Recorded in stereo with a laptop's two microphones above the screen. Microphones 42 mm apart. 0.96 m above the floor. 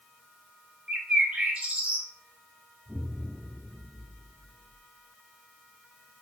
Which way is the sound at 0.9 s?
30° right (ahead or behind).